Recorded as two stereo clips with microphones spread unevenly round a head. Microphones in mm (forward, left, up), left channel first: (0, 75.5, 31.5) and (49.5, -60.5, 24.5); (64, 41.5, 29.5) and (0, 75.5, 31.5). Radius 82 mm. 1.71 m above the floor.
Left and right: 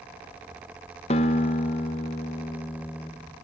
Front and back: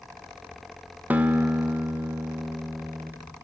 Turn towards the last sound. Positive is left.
turn(degrees=100)